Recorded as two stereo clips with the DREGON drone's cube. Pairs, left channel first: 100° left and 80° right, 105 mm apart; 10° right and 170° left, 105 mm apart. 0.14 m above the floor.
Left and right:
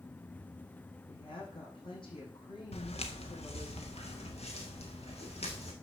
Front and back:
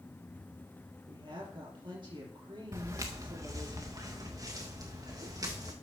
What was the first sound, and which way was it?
A woman speaking, 135° left.